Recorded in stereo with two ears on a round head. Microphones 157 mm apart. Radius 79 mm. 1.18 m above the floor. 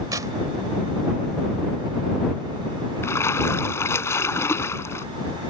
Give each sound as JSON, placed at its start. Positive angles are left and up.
{"t": 0.1, "sound": "tearing paper", "side_deg": -20}
{"t": 3.0, "sound": "a splash", "side_deg": 15}